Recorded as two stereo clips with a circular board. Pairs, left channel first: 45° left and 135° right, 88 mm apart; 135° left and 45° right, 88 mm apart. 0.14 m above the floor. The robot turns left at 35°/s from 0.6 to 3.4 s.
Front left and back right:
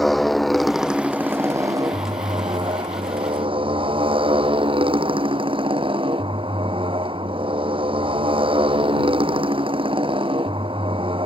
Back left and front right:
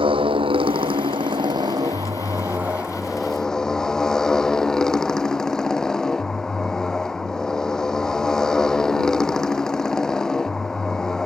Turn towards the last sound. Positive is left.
turn(degrees=-140)